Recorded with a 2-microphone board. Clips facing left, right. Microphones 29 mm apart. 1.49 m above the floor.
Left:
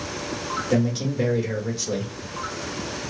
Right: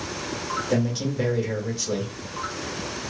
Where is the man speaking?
Centre (ahead or behind), 1.3 m.